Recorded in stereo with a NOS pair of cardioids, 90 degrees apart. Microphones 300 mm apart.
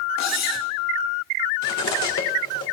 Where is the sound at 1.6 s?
65° left, 3 m.